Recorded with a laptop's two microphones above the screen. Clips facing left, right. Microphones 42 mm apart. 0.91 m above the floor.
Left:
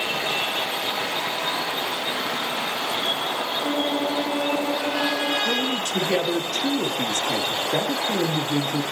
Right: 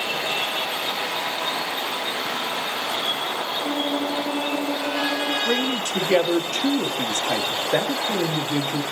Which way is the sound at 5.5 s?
60° right (ahead or behind).